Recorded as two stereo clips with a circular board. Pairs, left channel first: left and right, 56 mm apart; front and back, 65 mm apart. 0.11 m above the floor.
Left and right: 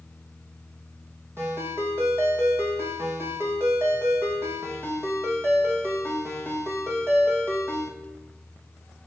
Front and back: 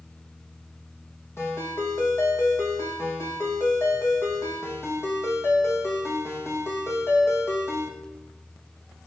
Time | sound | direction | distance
1.4 | a ringtone | 45° right | 2.5 m